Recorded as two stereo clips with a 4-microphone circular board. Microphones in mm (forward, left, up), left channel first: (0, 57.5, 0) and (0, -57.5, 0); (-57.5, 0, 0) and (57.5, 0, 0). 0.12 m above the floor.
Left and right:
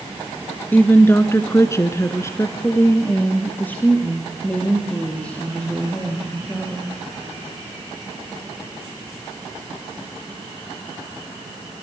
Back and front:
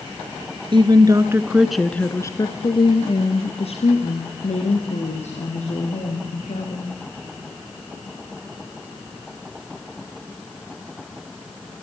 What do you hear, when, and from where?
0.7 s a woman speaking: 20° left, 1.7 m; by 6.9 s 170° left, 6 m